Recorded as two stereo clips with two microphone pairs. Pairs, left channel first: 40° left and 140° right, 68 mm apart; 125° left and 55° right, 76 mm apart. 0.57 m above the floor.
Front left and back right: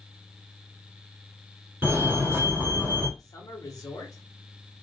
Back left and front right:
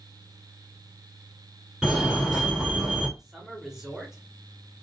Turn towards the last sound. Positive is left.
turn(degrees=25)